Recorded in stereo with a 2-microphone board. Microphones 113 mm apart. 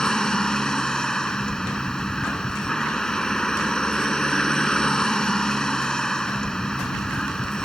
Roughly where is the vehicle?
Centre.